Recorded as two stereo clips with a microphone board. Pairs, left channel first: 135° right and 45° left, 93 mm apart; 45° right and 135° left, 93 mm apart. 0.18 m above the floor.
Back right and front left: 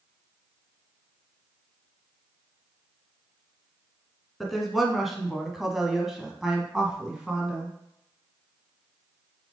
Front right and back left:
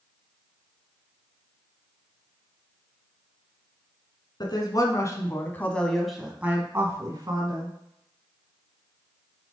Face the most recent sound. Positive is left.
turn(degrees=130)